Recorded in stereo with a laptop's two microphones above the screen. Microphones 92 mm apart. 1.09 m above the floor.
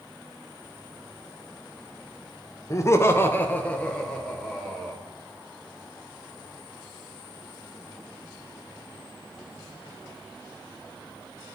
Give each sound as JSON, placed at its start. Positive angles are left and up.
{"t": 2.7, "sound": "laughter", "side_deg": 35, "distance_m": 0.7}